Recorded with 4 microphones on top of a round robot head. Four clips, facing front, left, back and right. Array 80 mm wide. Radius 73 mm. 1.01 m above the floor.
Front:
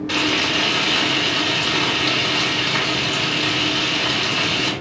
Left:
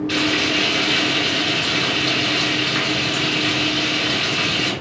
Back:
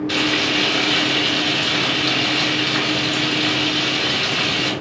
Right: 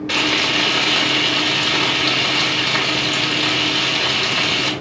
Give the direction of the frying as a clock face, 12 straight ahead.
2 o'clock.